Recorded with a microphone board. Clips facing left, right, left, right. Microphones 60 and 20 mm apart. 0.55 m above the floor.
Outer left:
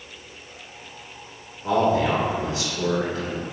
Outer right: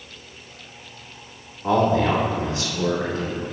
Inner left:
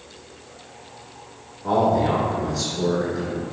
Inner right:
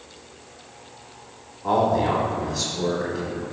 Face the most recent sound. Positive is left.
turn(degrees=-25)  # may be behind; listen again after turning